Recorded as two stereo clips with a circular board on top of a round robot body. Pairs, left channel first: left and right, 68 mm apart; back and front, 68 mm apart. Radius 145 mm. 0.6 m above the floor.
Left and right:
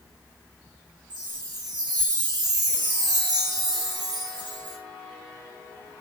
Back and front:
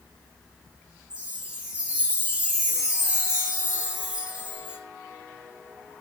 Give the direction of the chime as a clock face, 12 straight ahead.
2 o'clock.